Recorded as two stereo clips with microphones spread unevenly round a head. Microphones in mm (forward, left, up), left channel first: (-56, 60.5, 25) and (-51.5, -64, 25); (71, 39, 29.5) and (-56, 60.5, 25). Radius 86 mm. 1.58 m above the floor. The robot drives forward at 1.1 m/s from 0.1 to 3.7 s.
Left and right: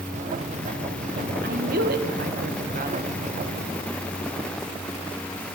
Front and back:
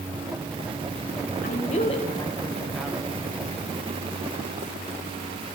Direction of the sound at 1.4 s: 55° right.